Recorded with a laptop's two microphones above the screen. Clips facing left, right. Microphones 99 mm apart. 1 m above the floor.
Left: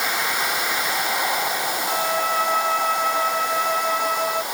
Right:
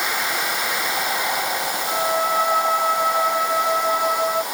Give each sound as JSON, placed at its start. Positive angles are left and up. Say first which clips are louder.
{"t": 1.9, "sound": "a violin", "louder": "right 3 dB", "side_deg": -15}